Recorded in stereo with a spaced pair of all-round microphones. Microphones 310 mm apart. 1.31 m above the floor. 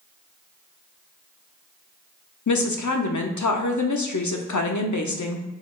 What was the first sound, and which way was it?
A woman speaking, 70° left (ahead or behind).